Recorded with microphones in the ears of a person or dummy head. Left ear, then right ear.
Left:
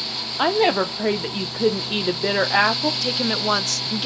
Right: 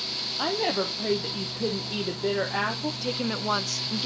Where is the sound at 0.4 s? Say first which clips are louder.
Left 9 dB; 50° left (ahead or behind), 0.6 m.